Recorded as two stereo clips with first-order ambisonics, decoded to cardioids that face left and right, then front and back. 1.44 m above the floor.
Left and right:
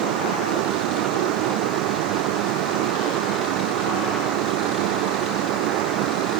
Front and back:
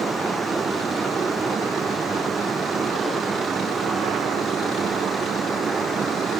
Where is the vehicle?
105° right; by 6.4 s 110° right.